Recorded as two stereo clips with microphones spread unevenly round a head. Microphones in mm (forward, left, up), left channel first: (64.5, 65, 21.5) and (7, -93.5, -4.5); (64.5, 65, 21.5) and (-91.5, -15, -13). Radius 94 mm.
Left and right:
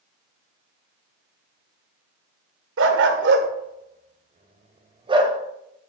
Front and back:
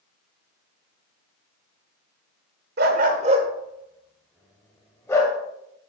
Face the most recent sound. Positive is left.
turn(degrees=-45)